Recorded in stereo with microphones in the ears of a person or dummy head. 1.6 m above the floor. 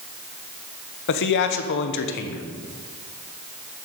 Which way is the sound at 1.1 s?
60° left (ahead or behind).